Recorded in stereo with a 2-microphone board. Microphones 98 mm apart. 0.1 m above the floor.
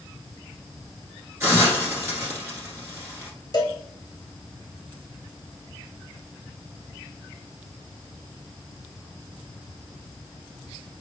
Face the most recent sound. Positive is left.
turn(degrees=40)  # may be behind; listen again after turning